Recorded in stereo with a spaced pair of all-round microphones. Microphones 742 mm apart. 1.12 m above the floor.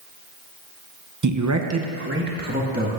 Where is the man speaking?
25° right (ahead or behind), 0.6 m; by 2.9 s 10° right (ahead or behind), 2 m.